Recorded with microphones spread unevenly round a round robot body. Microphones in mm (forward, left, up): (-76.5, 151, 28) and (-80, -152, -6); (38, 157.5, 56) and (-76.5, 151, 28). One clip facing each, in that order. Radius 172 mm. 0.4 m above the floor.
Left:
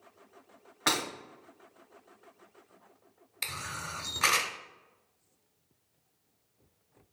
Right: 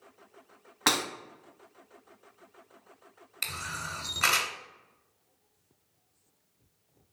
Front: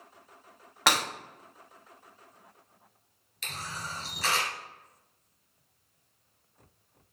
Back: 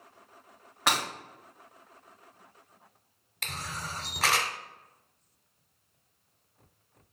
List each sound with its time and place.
0.9 s breaking glass: 20° right, 1.6 m
3.4 s a camera shutter: 175° left, 0.8 m